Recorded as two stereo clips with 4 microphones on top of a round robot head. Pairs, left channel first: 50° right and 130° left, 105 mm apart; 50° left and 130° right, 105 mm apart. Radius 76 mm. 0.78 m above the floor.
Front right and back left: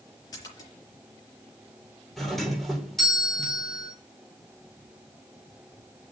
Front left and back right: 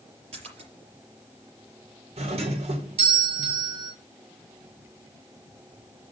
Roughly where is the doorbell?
Behind right.